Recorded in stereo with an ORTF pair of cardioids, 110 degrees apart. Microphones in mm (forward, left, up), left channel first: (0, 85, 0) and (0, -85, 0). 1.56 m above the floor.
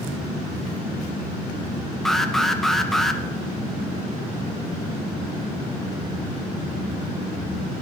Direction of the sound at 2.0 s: Straight ahead.